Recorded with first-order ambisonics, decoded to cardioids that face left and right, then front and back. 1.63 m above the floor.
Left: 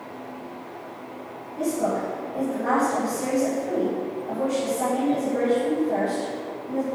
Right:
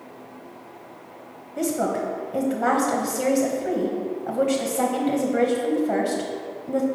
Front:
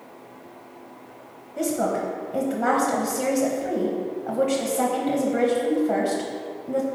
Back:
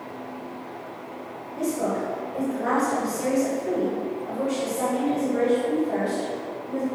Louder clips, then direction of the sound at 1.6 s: Right 1 dB, front 2 dB; 55° right.